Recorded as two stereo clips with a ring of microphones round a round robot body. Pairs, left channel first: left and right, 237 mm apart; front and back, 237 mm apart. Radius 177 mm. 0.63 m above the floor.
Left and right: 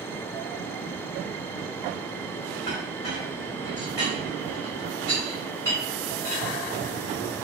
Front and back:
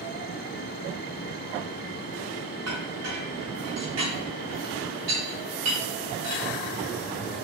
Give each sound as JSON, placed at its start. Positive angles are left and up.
{"t": 2.7, "sound": "a clink", "azimuth_deg": 170, "distance_m": 1.5}